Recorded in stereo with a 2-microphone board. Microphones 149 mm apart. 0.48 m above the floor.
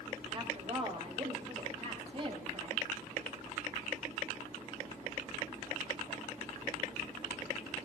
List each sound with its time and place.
0.3 s a woman speaking: 40° right (ahead or behind), 3.5 m